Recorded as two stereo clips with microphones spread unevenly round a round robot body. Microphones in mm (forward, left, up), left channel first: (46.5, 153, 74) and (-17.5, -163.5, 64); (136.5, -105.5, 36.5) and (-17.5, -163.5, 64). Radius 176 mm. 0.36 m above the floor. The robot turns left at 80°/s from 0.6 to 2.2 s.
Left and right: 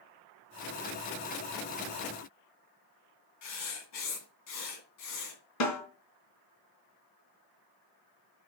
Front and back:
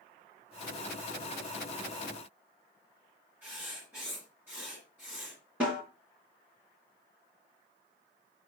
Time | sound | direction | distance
3.4 | writing | 115° left | 2.5 m
5.6 | a snare drum | 115° left | 3 m